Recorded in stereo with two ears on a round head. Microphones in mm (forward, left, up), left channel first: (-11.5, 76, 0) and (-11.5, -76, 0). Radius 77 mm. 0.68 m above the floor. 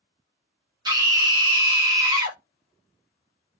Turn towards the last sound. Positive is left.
turn(degrees=-25)  # may be behind; listen again after turning